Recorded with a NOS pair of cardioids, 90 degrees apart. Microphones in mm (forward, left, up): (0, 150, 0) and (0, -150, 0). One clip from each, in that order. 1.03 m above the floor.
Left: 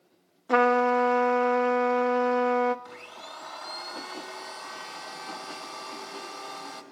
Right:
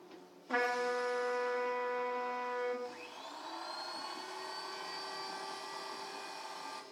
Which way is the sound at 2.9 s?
55° left.